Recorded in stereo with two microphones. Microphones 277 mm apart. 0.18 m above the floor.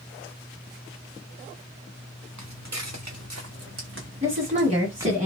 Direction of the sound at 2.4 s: 85° right.